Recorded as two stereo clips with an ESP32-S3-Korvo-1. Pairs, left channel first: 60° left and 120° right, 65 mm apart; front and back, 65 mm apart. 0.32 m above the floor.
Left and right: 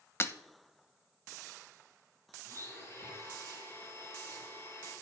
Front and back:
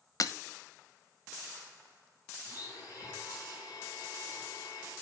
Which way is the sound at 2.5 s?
15° left.